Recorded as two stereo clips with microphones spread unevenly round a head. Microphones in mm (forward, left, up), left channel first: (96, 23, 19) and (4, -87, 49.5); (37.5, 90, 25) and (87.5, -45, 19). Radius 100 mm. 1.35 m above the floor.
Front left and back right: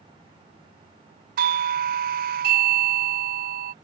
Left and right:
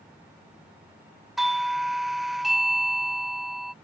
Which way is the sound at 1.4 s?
160° right.